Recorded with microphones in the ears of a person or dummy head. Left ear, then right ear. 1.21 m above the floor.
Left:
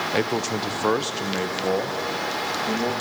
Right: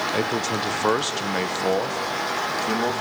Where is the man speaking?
15° left (ahead or behind), 0.7 m; by 2.9 s 45° right (ahead or behind), 1.9 m.